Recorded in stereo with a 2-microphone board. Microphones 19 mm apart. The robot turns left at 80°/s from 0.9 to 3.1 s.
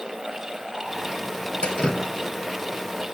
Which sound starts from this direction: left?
Dripping, at 1.6 s.